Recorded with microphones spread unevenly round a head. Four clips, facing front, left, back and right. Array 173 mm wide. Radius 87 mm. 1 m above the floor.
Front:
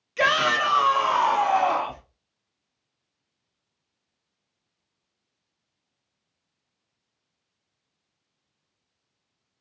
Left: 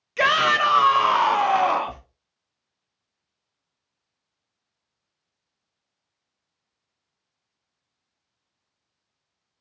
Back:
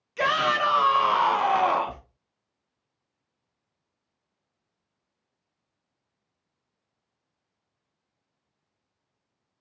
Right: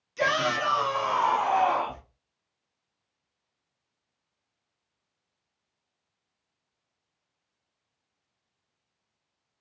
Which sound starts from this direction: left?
A shout, at 0.2 s.